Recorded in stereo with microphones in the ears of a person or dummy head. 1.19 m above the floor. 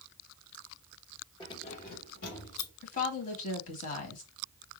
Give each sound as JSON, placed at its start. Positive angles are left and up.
{"t": 1.4, "sound": "keys jangling", "side_deg": 25, "distance_m": 1.3}
{"t": 2.8, "sound": "a woman speaking", "side_deg": 45, "distance_m": 1.7}